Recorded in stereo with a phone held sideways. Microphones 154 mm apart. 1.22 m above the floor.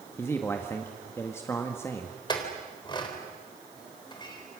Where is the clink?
30° left (ahead or behind), 3.5 m.